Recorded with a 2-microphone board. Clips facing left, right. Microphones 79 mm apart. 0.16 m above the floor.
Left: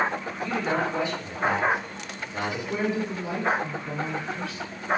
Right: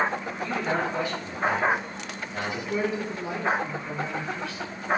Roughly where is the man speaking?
Left.